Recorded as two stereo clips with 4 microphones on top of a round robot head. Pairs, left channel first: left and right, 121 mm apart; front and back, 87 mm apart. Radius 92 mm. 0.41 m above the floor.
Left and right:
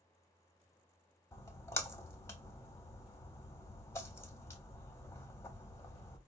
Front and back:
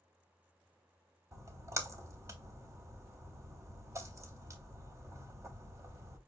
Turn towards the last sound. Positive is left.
turn(degrees=145)